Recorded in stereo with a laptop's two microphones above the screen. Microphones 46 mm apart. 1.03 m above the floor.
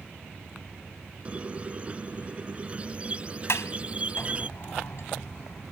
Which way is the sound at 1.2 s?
25° right (ahead or behind).